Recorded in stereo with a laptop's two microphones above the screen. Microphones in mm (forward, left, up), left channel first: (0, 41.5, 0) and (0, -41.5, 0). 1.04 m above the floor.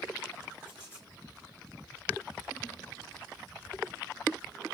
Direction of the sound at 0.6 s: 20° right (ahead or behind).